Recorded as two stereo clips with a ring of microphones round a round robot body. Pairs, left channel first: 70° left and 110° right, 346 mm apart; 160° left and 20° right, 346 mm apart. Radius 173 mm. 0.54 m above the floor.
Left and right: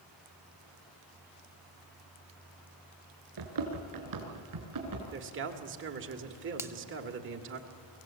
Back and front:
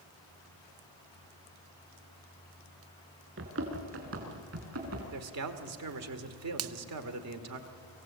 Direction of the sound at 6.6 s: 35° right.